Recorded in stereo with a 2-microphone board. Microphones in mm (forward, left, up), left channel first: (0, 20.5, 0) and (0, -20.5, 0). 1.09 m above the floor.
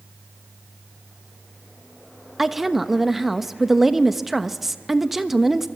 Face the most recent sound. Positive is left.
turn(degrees=-5)  # may be behind; listen again after turning